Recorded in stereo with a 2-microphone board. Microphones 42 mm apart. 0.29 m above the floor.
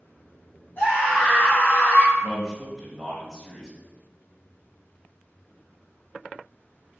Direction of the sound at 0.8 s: 50° left (ahead or behind).